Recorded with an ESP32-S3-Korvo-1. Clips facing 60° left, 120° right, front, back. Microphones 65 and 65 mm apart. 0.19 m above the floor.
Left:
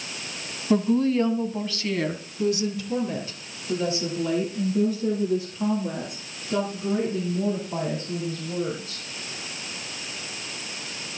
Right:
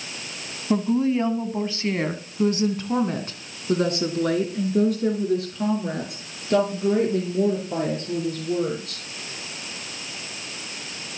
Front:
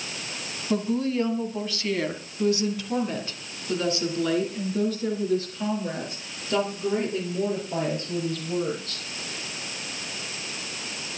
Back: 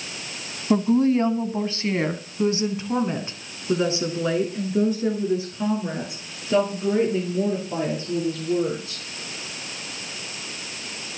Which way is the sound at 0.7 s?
155° left.